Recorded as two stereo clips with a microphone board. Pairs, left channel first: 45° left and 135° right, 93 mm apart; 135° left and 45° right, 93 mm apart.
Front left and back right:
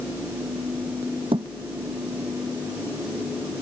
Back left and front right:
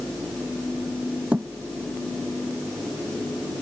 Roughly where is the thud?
Behind right.